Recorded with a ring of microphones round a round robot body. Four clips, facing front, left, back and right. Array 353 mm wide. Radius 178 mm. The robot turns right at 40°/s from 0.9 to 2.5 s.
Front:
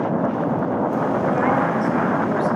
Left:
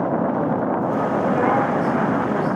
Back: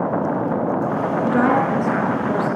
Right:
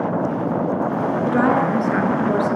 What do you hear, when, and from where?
1.3 s a woman speaking: 140° right, 7 m; by 2.6 s 90° right, 7 m